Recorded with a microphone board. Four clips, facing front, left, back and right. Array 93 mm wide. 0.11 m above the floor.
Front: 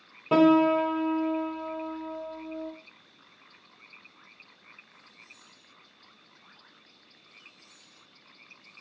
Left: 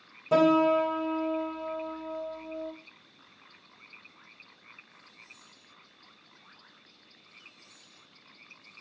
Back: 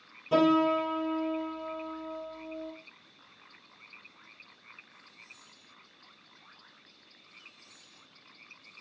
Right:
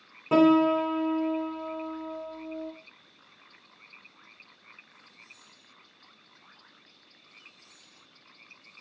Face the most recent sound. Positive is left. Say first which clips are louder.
# right 2 dB, front 4 dB
turn(degrees=-35)